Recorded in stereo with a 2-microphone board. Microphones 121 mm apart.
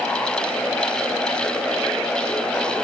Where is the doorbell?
No doorbell in this recording.